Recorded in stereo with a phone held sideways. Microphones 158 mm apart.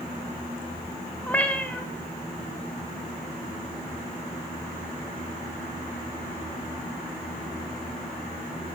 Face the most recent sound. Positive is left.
turn(degrees=10)  # may be behind; listen again after turning